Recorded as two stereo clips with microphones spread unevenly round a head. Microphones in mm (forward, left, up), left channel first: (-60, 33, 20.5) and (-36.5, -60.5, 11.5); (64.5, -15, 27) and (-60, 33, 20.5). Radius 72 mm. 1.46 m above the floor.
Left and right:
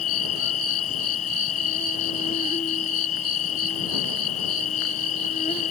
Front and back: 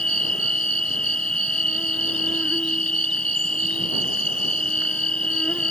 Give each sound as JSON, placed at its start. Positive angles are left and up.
{"t": 0.0, "sound": "an insect", "azimuth_deg": 60}